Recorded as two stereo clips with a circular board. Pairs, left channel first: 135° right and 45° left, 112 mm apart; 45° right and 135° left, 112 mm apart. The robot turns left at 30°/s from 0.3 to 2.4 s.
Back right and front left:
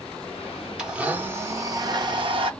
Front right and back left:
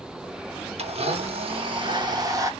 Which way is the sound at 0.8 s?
130° left.